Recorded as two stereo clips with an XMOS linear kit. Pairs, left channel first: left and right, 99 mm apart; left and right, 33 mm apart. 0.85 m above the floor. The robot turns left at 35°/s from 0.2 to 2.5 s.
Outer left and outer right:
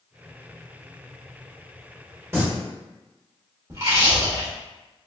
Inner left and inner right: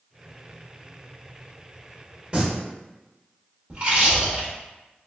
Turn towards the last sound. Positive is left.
turn(degrees=-30)  # may be behind; listen again after turning